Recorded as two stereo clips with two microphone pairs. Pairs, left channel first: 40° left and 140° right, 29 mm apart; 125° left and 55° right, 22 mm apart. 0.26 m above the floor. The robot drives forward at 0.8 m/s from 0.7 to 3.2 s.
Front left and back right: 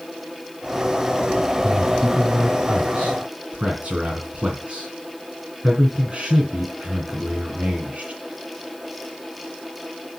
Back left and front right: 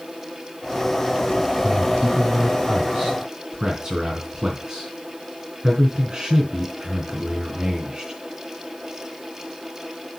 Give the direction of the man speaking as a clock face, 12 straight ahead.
3 o'clock.